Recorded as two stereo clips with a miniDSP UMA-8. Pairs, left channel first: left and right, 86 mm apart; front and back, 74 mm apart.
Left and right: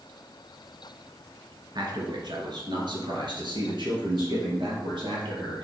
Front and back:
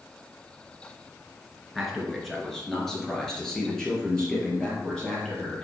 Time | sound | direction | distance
1.8 | a man speaking | 90° right | 2.5 m